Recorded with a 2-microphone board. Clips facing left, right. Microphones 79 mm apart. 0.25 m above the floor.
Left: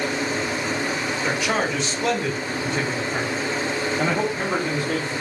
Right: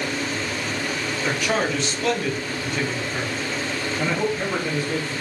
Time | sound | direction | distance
1.2 | a man speaking | 5° left (ahead or behind) | 1.3 m